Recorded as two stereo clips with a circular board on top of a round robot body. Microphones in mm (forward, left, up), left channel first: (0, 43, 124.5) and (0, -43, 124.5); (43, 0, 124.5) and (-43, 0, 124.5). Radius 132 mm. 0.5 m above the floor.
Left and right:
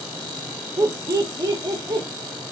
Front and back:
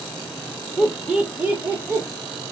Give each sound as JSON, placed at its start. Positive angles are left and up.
{"t": 0.8, "sound": "laughter", "azimuth_deg": -95, "distance_m": 1.5}